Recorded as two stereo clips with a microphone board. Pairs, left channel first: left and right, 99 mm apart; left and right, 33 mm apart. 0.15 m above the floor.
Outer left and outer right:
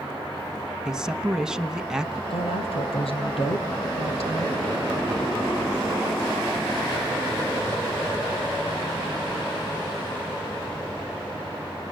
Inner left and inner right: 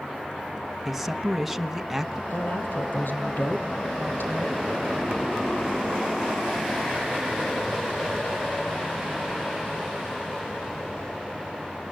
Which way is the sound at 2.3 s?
75° left (ahead or behind).